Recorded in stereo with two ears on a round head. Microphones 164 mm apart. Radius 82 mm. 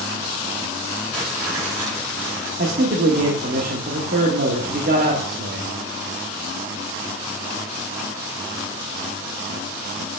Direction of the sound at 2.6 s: 50° right (ahead or behind).